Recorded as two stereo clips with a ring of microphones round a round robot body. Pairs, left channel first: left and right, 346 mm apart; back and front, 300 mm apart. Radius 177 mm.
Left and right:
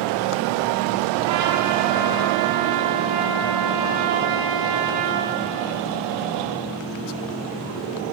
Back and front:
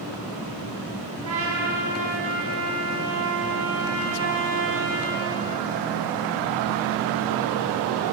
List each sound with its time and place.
1.2 s a trumpet: 50° right, 6 m